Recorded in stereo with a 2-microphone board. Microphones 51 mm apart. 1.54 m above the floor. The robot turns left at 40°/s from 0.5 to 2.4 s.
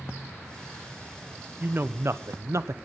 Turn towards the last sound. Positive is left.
turn(degrees=-75)